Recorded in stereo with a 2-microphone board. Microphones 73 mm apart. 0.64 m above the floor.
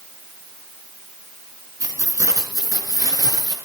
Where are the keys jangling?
50° right (ahead or behind), 4.5 m; by 3.5 s 55° right (ahead or behind), 6.5 m.